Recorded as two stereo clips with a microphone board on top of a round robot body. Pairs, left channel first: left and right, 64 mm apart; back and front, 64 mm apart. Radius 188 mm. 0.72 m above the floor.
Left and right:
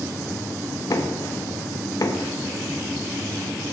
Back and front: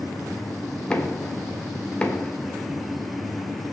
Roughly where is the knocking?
Left.